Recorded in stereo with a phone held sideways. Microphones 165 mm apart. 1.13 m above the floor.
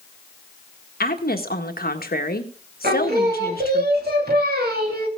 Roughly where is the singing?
Right.